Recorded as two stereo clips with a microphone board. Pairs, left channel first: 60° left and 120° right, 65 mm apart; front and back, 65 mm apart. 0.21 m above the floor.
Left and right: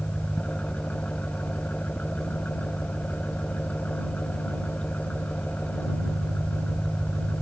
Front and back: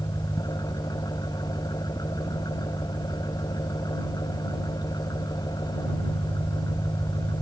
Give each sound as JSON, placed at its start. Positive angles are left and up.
{"t": 0.0, "sound": "an engine running", "azimuth_deg": -10}